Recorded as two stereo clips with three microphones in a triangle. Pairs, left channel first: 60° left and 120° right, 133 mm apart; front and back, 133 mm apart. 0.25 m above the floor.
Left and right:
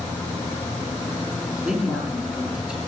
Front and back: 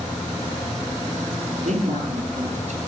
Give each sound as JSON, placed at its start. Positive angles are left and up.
{"t": 1.6, "sound": "a man speaking", "azimuth_deg": 155, "distance_m": 5.5}